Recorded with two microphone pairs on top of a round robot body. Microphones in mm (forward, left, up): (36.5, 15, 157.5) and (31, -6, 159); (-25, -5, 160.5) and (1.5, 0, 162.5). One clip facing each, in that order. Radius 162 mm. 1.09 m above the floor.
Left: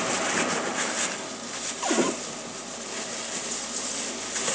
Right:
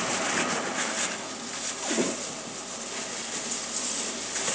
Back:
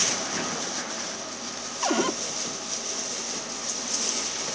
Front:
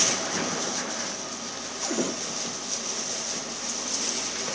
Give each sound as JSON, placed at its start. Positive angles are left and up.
{"t": 1.8, "sound": "a cupboard door", "azimuth_deg": 135}